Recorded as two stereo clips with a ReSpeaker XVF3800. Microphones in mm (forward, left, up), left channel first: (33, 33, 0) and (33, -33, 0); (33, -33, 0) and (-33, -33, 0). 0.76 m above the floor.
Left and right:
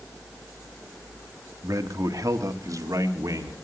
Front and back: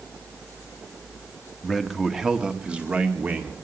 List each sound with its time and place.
1.6 s a man speaking: 85° right, 1.7 m; by 3.5 s 115° right, 2.5 m